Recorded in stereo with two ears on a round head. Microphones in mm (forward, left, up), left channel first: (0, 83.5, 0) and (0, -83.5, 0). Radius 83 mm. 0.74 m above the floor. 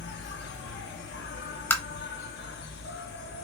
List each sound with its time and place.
0.0 s an insect: 60° left (ahead or behind), 0.8 m
1.7 s tapping: 10° left (ahead or behind), 0.6 m